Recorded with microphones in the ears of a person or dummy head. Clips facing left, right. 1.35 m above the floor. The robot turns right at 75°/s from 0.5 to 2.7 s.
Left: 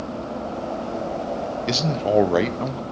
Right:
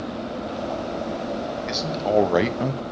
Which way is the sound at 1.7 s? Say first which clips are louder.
Left 2 dB; 130° left.